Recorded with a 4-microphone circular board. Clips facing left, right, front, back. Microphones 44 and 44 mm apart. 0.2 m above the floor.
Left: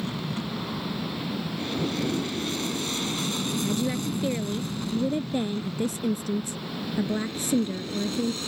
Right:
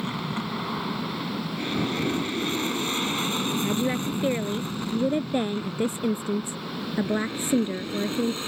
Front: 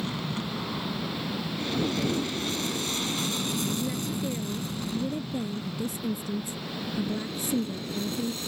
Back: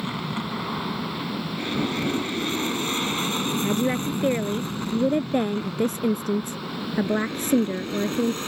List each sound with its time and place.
0.0 s an aircraft: 130° right; by 8.5 s 150° right
3.6 s a woman speaking: 155° right